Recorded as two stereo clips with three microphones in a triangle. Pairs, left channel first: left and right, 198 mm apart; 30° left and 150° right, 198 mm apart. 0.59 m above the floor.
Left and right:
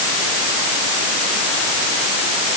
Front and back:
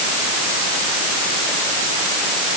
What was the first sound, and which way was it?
Only background noise.